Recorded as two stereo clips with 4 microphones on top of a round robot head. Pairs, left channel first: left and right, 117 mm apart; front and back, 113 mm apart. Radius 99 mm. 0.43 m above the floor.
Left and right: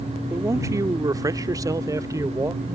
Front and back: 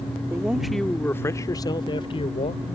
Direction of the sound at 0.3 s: 125° right.